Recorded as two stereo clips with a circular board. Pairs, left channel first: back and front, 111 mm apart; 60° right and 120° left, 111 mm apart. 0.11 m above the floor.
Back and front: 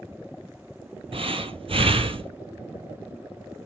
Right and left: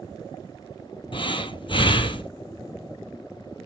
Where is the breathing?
25° right, 0.6 m.